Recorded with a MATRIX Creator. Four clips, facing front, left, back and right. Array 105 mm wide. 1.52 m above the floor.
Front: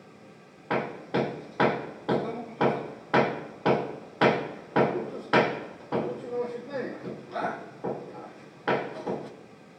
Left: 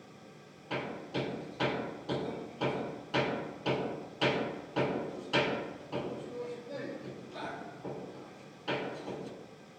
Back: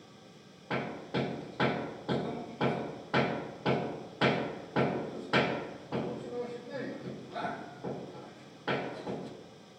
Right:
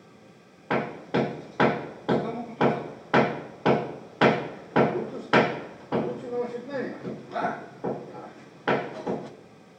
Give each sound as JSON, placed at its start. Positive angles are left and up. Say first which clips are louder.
{"t": 0.7, "sound": "hammering", "louder": "right 10 dB, front 6 dB", "azimuth_deg": -60, "distance_m": 0.8}